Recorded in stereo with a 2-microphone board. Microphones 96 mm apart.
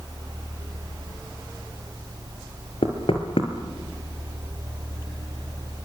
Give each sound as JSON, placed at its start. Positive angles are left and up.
{"t": 2.8, "sound": "knocking", "side_deg": 70, "distance_m": 3.5}